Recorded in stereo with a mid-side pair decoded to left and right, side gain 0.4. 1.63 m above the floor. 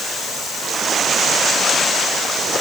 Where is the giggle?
No giggle in this recording.